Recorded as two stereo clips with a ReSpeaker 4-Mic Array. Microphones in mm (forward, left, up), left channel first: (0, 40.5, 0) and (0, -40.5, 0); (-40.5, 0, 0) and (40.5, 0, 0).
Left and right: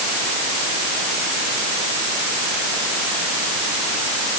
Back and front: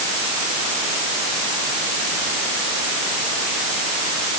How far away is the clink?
I don't hear a clink.